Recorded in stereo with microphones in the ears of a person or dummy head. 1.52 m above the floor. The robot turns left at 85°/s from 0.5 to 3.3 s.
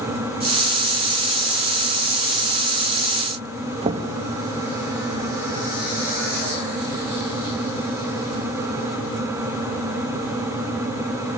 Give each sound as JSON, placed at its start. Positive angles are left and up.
{"t": 3.8, "sound": "knocking", "side_deg": -35, "distance_m": 1.8}